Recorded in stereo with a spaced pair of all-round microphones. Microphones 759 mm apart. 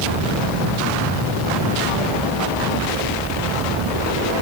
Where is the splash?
I don't hear a splash.